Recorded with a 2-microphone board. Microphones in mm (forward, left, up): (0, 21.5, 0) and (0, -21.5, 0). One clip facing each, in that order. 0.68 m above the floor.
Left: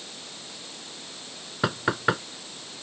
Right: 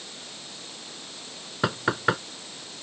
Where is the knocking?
5° right (ahead or behind).